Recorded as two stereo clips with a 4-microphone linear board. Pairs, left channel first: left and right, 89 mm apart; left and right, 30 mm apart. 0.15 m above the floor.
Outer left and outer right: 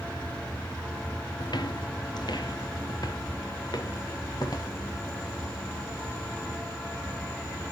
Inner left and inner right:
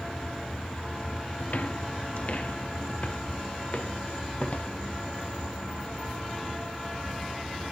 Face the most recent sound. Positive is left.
turn(degrees=50)  # may be behind; listen again after turning